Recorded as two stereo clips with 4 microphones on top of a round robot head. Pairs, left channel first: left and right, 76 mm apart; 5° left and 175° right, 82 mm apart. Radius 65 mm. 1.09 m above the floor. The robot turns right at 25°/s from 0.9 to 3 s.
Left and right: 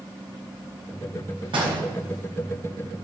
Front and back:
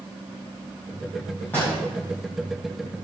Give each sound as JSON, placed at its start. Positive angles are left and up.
{"t": 1.5, "sound": "a door slam", "azimuth_deg": -75, "distance_m": 5.0}